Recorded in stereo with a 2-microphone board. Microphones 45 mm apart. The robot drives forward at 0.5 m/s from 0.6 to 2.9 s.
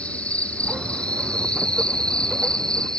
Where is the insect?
30° left (ahead or behind); by 3.0 s 20° left (ahead or behind).